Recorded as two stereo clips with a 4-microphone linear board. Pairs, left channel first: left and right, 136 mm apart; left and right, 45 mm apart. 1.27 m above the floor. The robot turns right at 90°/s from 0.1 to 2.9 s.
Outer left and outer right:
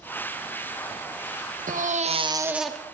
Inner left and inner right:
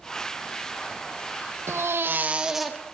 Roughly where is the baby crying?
Right.